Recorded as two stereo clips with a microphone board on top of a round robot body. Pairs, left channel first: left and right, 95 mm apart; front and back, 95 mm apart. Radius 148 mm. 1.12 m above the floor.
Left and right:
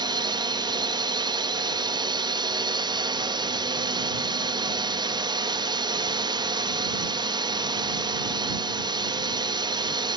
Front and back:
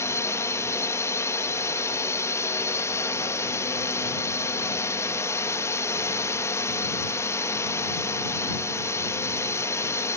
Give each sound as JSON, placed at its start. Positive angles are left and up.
{"t": 0.0, "sound": "a drone", "azimuth_deg": -60}